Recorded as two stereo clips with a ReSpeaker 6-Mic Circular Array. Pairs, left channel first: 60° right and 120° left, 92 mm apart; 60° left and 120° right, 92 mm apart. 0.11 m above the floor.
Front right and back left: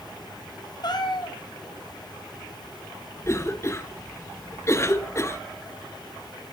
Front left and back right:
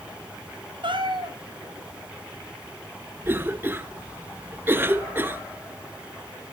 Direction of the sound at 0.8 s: 100° right.